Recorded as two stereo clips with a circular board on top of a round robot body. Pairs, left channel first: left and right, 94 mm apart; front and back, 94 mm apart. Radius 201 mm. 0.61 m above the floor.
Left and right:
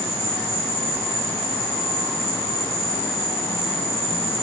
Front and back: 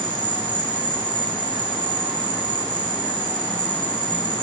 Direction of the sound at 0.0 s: 150° right.